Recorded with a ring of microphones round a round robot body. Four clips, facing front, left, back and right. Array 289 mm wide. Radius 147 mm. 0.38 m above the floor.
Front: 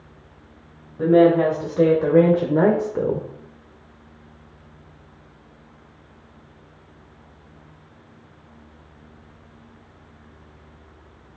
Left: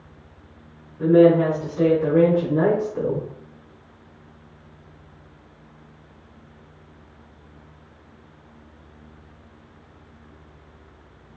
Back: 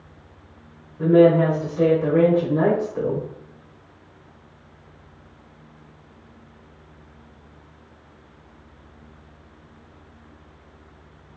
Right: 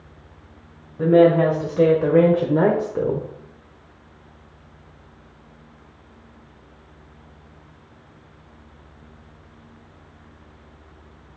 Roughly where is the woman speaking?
Ahead right.